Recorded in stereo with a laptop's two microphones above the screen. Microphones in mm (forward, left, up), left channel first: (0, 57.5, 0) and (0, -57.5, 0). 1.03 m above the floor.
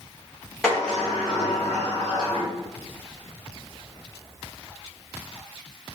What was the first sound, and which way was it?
A sliding door, 10° left (ahead or behind).